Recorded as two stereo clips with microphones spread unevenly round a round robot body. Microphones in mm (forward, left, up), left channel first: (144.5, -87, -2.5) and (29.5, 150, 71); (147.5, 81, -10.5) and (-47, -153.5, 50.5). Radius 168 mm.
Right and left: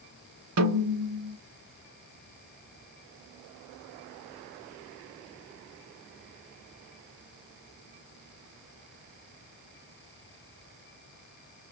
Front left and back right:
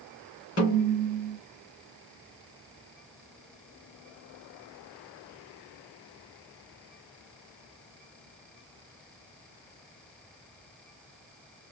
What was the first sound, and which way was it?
A snare drum, 100° left.